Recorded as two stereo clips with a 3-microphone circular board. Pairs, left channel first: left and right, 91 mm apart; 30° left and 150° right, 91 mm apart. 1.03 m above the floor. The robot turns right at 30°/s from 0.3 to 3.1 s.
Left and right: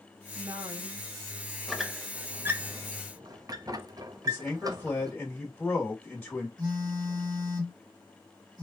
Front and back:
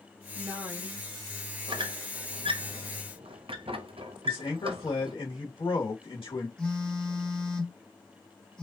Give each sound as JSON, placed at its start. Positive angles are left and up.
{"t": 0.3, "sound": "a woman speaking", "azimuth_deg": -105, "distance_m": 1.8}
{"t": 1.7, "sound": "a squeak", "azimuth_deg": 180, "distance_m": 0.6}
{"t": 4.2, "sound": "a man speaking", "azimuth_deg": 5, "distance_m": 1.6}
{"t": 6.6, "sound": "a phone buzzing", "azimuth_deg": -50, "distance_m": 1.6}